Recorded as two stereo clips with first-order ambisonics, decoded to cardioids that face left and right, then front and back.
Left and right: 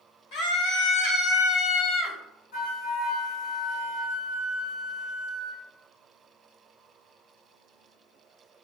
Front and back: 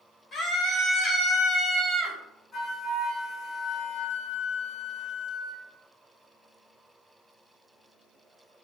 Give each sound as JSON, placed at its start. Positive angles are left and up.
{"t": 0.3, "sound": "a scream", "azimuth_deg": 70, "distance_m": 3.0}
{"t": 2.5, "sound": "a flute", "azimuth_deg": 85, "distance_m": 3.0}